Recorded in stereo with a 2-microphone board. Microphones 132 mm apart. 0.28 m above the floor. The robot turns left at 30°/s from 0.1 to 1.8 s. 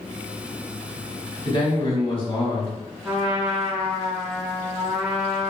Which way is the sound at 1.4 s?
35° left (ahead or behind).